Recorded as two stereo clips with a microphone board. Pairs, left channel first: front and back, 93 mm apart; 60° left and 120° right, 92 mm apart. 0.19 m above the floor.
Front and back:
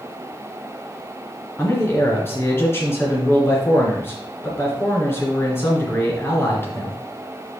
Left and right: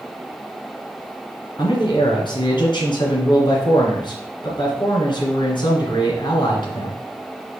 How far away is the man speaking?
About 2.5 m.